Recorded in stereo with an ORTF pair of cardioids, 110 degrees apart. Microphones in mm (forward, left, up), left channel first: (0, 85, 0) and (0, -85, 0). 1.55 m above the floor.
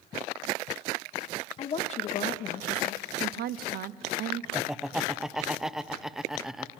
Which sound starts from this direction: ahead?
Laughter, at 4.5 s.